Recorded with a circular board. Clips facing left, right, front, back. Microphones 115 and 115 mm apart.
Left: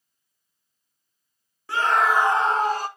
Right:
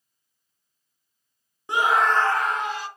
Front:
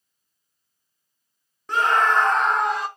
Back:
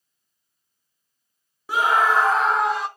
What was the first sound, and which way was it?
A scream, 115° right.